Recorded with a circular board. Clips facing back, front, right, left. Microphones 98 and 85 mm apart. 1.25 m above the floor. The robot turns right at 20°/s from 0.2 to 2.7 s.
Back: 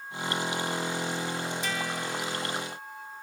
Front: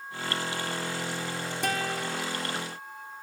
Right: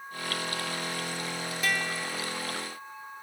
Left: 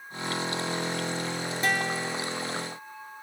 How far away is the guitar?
About 4.5 m.